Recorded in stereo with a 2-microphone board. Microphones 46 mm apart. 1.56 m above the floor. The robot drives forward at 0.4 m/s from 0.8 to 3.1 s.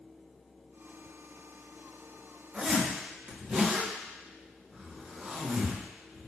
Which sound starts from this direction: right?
A zipper, at 2.5 s.